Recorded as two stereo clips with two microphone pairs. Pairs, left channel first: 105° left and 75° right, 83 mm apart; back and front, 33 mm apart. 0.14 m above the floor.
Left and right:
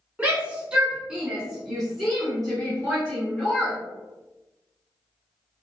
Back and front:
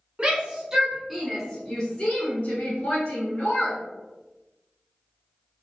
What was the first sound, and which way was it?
A shout, 10° right.